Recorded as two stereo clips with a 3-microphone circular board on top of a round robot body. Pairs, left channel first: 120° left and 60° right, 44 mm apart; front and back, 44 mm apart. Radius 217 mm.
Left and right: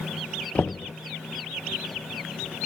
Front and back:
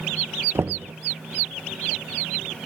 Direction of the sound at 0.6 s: 175° left.